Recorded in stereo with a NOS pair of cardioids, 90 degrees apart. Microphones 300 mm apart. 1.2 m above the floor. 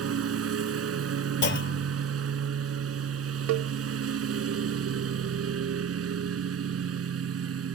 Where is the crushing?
I don't hear crushing.